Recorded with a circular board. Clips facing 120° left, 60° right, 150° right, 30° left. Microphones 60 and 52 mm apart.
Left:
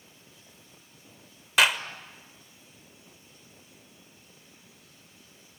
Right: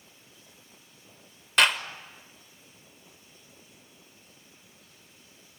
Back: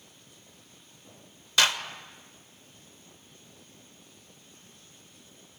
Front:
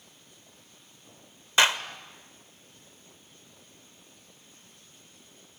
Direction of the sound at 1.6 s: 40° left.